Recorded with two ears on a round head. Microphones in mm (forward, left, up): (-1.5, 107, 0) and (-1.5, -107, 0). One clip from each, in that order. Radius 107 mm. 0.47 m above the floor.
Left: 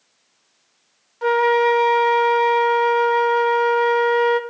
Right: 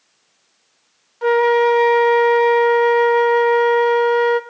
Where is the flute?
5° left (ahead or behind), 0.5 m.